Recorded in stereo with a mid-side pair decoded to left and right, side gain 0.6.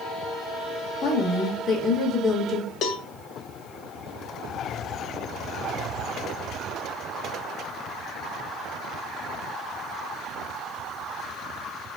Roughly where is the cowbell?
Ahead left.